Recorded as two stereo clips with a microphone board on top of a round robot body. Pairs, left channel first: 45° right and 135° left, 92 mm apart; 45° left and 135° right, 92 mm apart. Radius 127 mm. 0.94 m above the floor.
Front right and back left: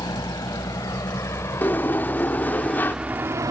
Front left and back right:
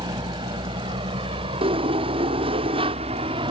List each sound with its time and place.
0.0 s a vehicle: 95° right; by 3.5 s 170° right
1.6 s a sliding door: 115° right